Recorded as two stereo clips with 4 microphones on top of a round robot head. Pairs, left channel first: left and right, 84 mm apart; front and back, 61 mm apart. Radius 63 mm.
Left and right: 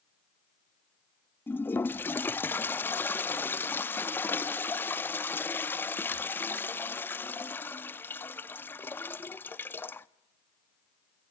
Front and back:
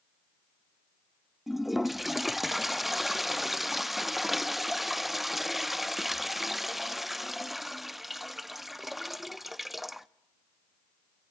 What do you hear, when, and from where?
1.5 s a toilet flushing: 100° left, 0.5 m